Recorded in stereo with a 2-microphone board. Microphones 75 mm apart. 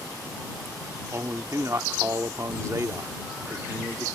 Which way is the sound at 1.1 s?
45° right (ahead or behind).